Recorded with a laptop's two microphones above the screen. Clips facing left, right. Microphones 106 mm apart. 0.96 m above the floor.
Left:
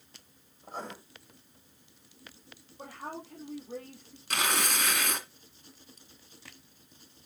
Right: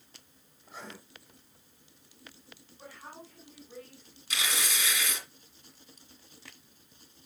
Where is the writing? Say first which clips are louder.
Left 6 dB; 40° left (ahead or behind), 5 m.